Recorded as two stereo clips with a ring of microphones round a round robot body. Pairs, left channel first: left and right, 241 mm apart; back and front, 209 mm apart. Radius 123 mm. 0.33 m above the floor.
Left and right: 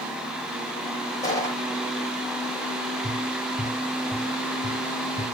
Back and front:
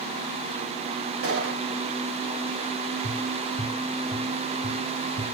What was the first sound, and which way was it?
A gunshot, 15° left.